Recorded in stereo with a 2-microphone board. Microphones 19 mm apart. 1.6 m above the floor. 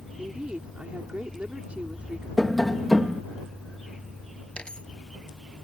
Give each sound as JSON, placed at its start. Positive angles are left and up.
{"t": 0.2, "sound": "a woman speaking", "side_deg": -90}
{"t": 2.4, "sound": "tapping", "side_deg": 5}
{"t": 4.6, "sound": "a dropped coin", "side_deg": 60}